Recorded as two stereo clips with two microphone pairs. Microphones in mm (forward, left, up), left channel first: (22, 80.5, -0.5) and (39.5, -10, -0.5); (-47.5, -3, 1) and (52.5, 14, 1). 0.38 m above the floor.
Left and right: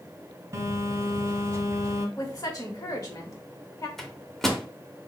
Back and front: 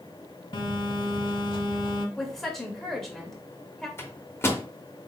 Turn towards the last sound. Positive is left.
turn(degrees=175)